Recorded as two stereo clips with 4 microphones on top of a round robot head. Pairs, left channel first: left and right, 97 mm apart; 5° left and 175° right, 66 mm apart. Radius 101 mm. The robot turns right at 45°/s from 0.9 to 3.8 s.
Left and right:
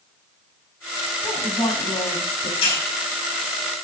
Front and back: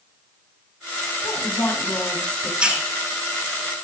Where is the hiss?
110° left, 6.5 m; by 2.8 s 120° left, 6.5 m.